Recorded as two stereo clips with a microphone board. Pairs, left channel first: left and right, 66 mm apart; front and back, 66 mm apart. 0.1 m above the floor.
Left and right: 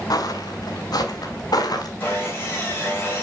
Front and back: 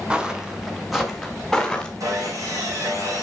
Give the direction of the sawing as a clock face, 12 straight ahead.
7 o'clock.